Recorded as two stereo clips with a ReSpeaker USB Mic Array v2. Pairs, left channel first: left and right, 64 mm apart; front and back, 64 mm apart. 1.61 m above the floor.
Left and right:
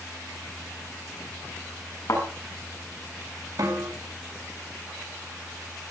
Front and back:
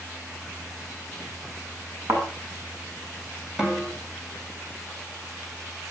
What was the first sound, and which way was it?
A thud, 135° left.